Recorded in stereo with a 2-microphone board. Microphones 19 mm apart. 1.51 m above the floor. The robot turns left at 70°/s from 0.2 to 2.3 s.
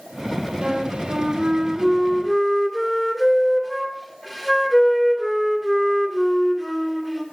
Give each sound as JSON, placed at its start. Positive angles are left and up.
{"t": 0.6, "sound": "a flute", "azimuth_deg": -65, "distance_m": 2.5}